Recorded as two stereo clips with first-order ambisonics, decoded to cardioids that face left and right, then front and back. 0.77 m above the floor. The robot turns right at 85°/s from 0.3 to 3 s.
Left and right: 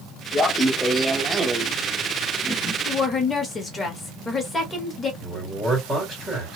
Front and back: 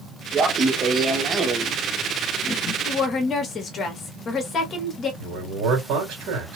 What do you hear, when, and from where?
0.3 s laughter: 145° left, 0.7 m; by 2.8 s 10° right, 0.7 m
2.9 s a woman speaking: 20° left, 1.0 m; by 5.1 s 30° left, 1.0 m
5.2 s a man speaking: 170° right, 2.5 m